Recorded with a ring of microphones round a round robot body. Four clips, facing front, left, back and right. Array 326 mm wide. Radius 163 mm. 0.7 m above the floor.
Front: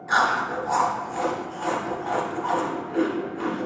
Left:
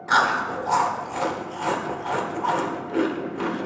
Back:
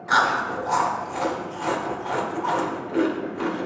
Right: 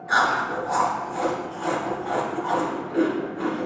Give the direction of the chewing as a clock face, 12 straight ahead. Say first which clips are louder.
Left 1 dB, back 1 dB; 8 o'clock.